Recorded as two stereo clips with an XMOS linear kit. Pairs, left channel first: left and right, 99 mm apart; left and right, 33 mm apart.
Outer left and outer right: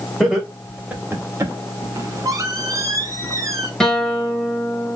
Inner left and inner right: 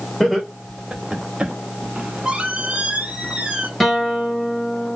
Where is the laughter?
Centre (ahead or behind), 2.5 m; by 1.5 s 35° right (ahead or behind), 1.5 m.